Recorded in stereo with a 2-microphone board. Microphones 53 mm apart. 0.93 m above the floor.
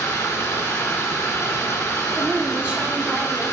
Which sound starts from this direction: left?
Running water, at 0.0 s.